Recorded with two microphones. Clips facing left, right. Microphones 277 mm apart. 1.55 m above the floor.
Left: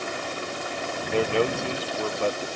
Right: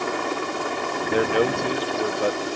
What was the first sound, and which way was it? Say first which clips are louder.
A helicopter: right 6 dB; 75° right (ahead or behind).